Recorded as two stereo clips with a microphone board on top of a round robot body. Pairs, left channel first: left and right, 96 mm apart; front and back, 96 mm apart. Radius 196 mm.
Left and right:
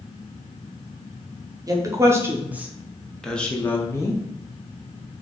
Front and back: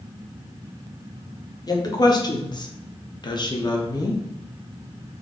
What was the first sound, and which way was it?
A woman speaking, 40° right.